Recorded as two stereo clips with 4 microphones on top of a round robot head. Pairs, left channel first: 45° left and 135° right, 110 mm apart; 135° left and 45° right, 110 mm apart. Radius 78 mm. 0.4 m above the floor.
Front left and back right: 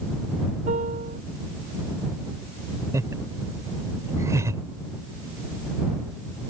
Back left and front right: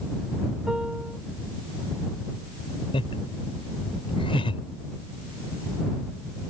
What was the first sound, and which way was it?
A piano, 125° right.